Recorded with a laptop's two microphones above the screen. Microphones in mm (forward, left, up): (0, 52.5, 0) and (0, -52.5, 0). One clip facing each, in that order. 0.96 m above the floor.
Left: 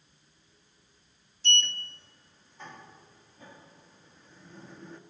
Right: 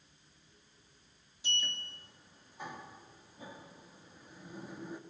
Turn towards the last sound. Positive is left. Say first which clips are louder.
# left 8 dB
turn(degrees=-10)  # may be behind; listen again after turning